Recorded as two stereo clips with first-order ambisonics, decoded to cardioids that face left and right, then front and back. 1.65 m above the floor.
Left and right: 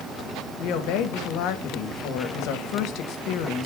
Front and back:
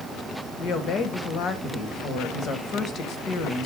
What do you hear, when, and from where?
0.6 s a woman speaking: 55° left, 1.3 m